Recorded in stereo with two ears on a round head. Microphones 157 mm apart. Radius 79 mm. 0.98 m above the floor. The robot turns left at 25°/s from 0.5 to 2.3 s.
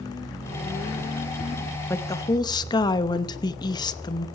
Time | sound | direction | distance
1.9 | a woman speaking | 15° left (ahead or behind) | 0.8 m